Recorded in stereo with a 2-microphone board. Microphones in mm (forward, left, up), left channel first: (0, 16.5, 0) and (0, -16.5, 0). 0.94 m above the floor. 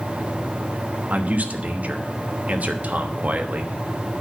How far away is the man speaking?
About 1.1 m.